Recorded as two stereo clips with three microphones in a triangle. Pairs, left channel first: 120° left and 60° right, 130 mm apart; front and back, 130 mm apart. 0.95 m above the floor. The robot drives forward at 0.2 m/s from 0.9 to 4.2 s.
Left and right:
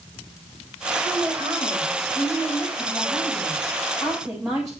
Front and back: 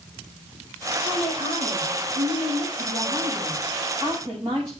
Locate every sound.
1.0 s a woman speaking: 140° right, 5.5 m; by 4.7 s 145° right, 6 m